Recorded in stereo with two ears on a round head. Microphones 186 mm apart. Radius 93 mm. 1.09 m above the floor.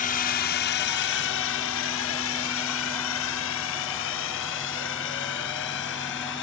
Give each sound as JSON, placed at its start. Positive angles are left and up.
{"t": 0.0, "sound": "a drone", "side_deg": 40}